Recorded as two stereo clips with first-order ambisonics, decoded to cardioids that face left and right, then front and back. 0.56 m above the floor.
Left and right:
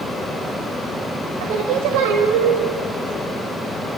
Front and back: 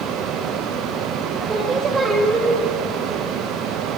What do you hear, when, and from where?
1.4 s singing: 105° right, 2.5 m